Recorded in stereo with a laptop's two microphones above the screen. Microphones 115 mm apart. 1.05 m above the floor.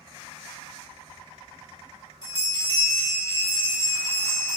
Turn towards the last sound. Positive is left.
turn(degrees=-35)  # may be behind; listen again after turning